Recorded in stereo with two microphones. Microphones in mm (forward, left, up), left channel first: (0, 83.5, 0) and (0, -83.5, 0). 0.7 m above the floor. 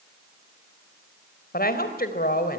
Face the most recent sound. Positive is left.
turn(degrees=65)  # may be behind; listen again after turning